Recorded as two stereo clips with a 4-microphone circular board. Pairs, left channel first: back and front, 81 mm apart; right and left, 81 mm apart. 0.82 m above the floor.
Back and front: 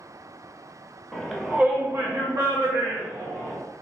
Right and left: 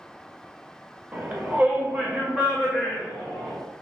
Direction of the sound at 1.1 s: 110° left.